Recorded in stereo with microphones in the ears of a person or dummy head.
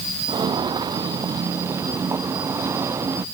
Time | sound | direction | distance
0.3 | footsteps | 20° right (ahead or behind) | ?